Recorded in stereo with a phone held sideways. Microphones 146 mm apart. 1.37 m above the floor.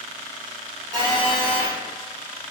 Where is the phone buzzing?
30° right (ahead or behind), 1.3 m.